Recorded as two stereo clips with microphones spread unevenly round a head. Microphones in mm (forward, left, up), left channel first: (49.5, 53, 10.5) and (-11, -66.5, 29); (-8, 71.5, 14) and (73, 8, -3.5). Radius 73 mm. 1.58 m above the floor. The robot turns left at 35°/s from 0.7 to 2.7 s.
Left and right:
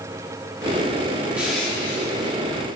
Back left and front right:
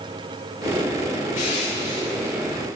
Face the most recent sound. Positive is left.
turn(degrees=115)